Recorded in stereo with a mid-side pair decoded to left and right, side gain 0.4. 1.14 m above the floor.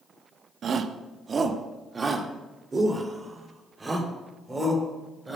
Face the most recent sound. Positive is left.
turn(degrees=-30)